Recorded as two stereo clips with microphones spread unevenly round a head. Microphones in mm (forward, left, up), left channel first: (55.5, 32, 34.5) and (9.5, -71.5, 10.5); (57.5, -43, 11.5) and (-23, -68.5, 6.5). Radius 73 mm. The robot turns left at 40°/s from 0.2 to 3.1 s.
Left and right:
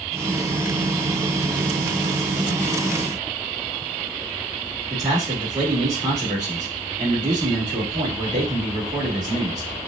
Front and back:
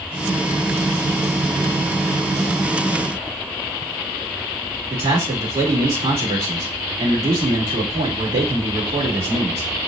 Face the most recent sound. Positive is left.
turn(degrees=-175)